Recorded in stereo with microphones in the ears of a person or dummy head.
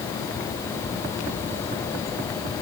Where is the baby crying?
No baby crying in this recording.